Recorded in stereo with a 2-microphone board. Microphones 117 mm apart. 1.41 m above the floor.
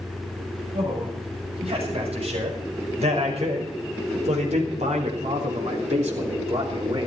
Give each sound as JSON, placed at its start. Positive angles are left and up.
{"t": 0.7, "sound": "a man speaking", "side_deg": -55, "distance_m": 8.5}